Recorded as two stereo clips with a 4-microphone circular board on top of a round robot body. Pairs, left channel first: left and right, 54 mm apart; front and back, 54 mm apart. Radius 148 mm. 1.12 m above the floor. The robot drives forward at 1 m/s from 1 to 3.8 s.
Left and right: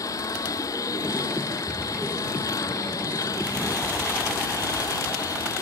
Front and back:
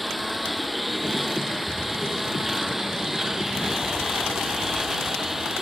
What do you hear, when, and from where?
0.0 s a lawn mower: 90° left; by 5.6 s 95° left